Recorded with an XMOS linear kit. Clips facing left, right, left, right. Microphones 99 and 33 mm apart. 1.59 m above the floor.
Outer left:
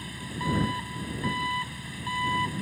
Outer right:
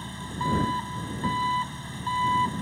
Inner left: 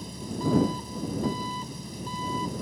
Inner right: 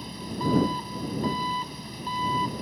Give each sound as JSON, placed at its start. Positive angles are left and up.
{"t": 0.0, "sound": "an engine running", "side_deg": -25}